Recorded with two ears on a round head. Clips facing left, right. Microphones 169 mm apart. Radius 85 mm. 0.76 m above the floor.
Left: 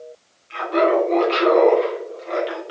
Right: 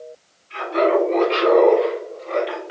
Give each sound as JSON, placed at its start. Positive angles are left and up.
{"t": 0.5, "sound": "laughter", "side_deg": 65, "distance_m": 1.4}